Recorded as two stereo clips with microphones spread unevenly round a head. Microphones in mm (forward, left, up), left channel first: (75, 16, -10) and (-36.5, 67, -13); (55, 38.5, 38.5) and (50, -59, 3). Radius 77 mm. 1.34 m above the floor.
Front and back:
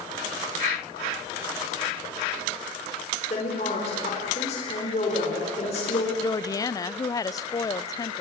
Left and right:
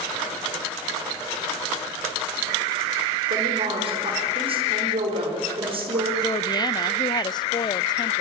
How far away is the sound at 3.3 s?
About 4.5 m.